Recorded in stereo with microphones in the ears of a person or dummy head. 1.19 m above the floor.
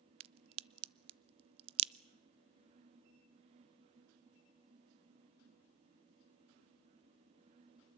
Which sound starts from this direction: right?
A crack, at 0.2 s.